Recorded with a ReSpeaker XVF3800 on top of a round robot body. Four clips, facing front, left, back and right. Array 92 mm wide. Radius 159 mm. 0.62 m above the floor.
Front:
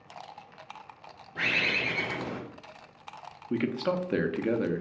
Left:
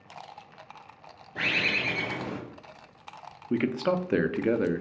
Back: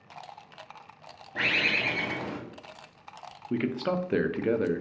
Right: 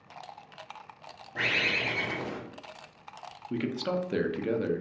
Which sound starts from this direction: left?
A man speaking, at 3.5 s.